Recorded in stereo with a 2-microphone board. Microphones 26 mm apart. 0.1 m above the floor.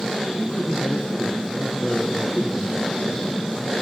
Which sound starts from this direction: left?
A man speaking, at 0.4 s.